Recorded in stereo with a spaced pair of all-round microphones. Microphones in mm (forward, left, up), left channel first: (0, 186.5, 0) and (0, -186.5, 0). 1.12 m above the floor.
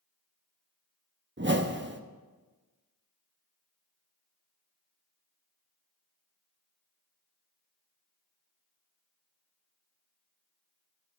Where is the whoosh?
30° right (ahead or behind), 0.9 m.